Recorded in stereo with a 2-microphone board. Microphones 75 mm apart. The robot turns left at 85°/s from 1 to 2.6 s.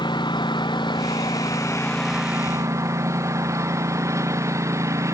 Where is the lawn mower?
95° left; by 5.1 s 40° right.